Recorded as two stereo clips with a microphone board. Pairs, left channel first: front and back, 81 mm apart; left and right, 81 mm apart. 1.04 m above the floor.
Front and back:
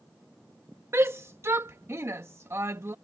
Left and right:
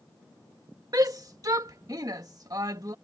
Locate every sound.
0.9 s a shout: 125° right